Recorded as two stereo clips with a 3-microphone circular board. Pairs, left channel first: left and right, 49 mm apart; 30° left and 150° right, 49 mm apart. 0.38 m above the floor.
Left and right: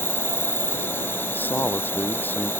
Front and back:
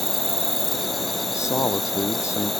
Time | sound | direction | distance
0.0 | an insect | 120° left | ?
1.3 | a man speaking | 40° left | ?